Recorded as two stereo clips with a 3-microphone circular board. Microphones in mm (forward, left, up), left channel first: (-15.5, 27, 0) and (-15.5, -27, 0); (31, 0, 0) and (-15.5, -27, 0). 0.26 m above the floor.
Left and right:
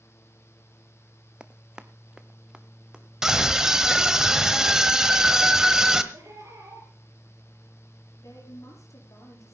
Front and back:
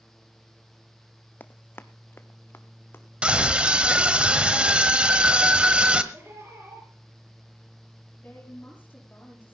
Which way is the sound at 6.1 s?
105° right.